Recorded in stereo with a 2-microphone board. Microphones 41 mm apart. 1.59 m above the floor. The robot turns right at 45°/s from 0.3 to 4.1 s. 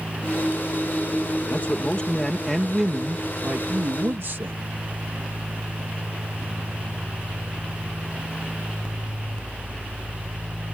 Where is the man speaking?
130° left; by 4.6 s 115° right.